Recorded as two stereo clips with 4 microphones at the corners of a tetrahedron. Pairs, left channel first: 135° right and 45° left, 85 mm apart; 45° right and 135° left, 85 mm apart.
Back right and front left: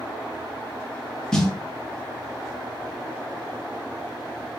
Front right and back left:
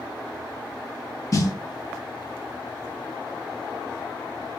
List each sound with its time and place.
1.3 s a snare drum: 55° right, 0.5 m